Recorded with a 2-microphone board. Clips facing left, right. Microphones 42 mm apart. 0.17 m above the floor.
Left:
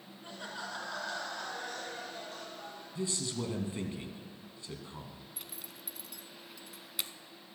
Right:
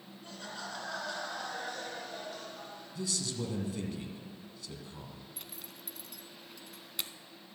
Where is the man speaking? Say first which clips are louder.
Left 1 dB; 30° left (ahead or behind), 1.4 m.